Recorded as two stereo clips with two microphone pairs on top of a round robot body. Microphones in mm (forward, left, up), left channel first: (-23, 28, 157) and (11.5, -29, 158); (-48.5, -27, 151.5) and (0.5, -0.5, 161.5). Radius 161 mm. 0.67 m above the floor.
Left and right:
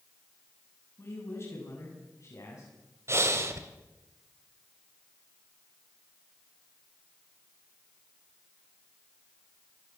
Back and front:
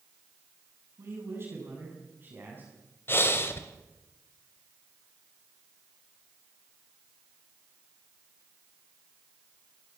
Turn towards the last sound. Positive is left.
turn(degrees=-105)